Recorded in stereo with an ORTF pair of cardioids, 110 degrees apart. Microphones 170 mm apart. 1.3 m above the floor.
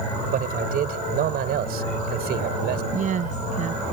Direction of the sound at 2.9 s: 50° right.